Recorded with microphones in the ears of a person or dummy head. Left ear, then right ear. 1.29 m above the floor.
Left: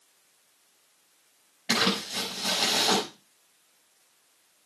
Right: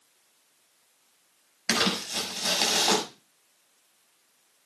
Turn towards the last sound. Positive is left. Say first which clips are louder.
# even
turn(degrees=-40)  # may be behind; listen again after turning